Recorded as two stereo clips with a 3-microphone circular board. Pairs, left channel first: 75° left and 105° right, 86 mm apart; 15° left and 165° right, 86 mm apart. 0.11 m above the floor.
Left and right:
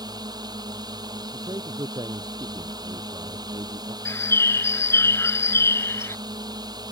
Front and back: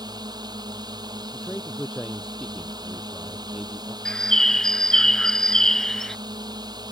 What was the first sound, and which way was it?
A drone, 135° right.